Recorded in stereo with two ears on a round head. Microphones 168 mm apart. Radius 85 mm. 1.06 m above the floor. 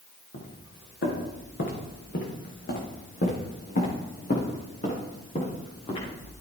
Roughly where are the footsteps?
Left.